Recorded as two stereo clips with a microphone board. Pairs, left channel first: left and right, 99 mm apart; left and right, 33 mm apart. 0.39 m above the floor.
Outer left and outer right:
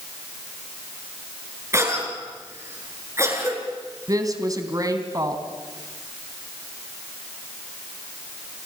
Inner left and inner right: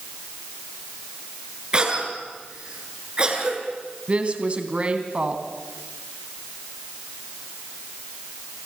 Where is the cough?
30° right (ahead or behind), 6.5 m.